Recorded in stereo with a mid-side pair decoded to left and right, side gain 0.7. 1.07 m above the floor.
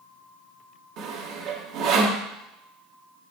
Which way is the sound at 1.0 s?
60° right.